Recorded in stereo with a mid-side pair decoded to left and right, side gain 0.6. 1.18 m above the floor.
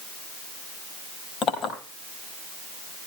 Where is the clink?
50° left, 4 m.